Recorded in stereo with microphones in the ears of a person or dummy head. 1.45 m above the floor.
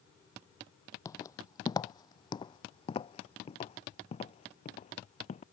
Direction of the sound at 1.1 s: 20° left (ahead or behind).